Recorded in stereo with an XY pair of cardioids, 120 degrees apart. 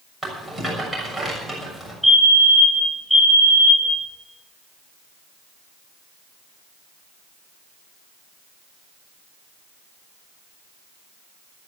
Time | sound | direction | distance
0.2 | a rattle | straight ahead | 6.5 m
2.0 | a fire alarm | 5° left | 3 m